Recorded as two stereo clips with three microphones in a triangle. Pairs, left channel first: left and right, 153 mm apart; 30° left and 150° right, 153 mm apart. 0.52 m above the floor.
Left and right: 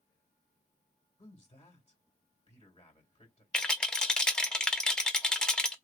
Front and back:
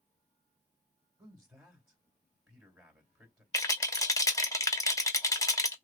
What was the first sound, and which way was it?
A man speaking, 140° left.